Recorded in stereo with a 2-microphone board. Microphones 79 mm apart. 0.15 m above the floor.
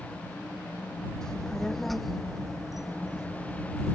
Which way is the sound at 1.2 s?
10° left (ahead or behind).